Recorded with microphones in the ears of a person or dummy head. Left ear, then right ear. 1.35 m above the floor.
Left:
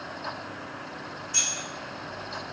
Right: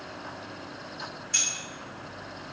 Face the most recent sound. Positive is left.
turn(degrees=-45)  # may be behind; listen again after turning